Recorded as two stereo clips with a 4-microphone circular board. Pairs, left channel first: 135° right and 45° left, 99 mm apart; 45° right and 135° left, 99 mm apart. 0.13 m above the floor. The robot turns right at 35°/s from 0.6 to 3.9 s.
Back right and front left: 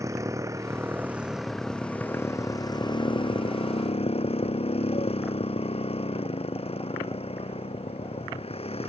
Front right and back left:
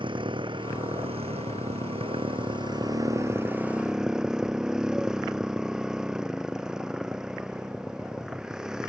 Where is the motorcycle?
105° left; by 8.9 s 140° right.